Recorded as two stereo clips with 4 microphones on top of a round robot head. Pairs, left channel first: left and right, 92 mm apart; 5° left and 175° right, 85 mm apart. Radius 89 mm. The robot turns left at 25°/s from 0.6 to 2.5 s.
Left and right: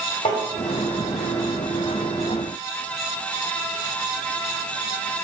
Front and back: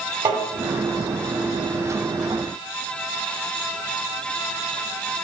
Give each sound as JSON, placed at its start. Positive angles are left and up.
{"t": 0.2, "sound": "tapping", "azimuth_deg": 135, "distance_m": 2.0}